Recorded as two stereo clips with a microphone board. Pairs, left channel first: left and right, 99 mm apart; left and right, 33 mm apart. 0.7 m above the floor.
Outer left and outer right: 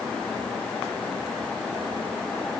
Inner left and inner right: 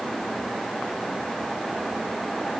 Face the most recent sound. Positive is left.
No sound to turn to.